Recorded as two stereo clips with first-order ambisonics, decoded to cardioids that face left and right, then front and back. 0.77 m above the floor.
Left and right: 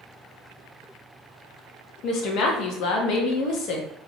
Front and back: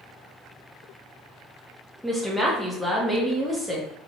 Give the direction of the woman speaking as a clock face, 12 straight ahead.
9 o'clock.